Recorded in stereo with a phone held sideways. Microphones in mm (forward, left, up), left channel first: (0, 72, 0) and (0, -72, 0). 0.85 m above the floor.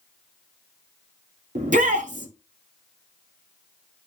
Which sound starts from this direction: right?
A shout, at 1.6 s.